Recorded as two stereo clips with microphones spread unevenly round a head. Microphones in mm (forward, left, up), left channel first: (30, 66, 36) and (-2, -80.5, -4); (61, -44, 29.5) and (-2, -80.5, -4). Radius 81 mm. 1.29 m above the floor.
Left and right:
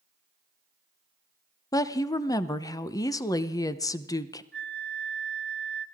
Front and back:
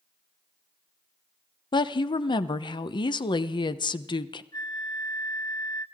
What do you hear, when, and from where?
1.7 s a woman speaking: 10° left, 0.8 m
4.5 s a flute: 10° right, 1.3 m